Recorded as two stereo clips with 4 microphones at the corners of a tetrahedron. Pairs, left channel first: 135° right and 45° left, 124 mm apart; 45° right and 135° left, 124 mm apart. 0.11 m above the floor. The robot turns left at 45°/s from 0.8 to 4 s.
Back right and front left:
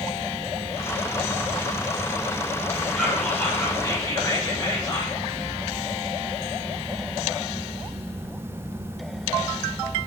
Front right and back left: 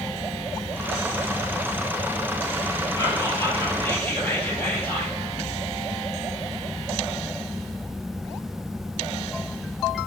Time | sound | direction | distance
3.0 | whispering | 55° right | 1.5 m